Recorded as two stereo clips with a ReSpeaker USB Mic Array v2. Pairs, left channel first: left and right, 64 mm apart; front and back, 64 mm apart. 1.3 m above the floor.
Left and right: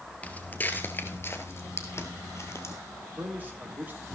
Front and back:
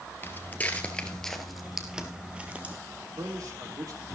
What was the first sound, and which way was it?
Footsteps, 35° left.